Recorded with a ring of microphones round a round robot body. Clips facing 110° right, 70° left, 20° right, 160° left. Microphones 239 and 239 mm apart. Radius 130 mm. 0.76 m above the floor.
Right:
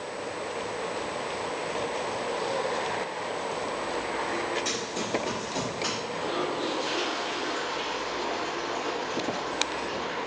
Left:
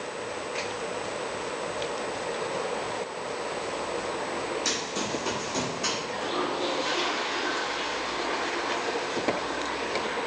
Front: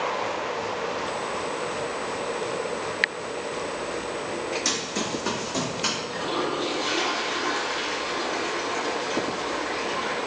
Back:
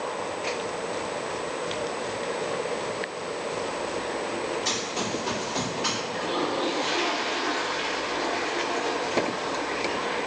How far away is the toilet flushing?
About 1.6 m.